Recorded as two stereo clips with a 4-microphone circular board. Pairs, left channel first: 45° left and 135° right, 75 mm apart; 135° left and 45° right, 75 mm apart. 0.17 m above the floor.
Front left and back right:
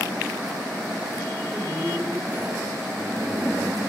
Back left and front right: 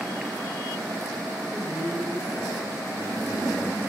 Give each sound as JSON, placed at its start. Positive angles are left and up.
{"t": 1.4, "sound": "a man speaking", "azimuth_deg": 140, "distance_m": 8.0}